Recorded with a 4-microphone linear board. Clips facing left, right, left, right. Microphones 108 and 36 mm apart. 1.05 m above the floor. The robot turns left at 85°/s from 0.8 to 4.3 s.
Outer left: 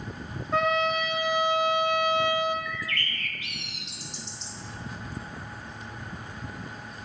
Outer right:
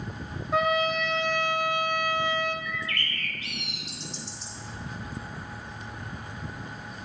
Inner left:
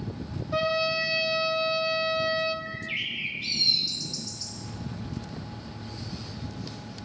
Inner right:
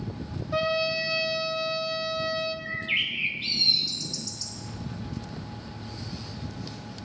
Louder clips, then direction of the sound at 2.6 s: Even, inner right 4 dB; 70° right.